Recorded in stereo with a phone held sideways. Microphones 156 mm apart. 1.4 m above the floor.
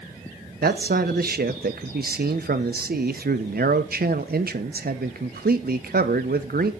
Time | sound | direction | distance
0.6 | a man speaking | 80° right | 1.1 m